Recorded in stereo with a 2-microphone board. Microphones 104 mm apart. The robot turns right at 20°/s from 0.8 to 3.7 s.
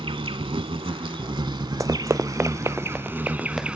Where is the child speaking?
No child speaking in this recording.